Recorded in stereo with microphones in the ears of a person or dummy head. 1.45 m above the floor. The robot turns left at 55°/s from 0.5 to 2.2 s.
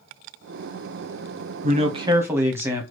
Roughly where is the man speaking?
Behind right.